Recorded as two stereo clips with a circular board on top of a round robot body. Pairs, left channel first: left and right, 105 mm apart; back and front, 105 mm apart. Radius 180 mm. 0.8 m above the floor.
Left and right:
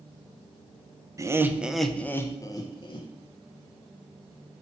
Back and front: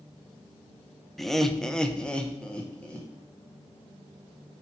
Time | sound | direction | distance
1.2 | laughter | 90° right | 0.9 m